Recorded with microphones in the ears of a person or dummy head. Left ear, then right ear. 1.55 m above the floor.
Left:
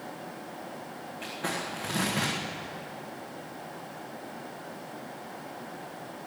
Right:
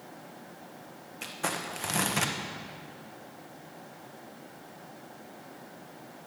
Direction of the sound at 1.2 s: 40° right (ahead or behind).